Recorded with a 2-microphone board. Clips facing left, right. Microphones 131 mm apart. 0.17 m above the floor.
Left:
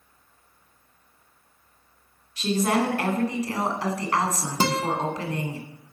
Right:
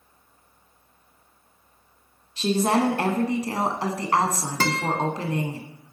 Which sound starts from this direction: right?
A woman speaking, at 2.4 s.